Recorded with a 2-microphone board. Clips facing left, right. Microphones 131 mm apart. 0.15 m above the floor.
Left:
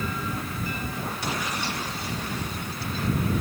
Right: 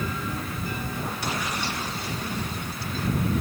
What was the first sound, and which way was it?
Only background noise.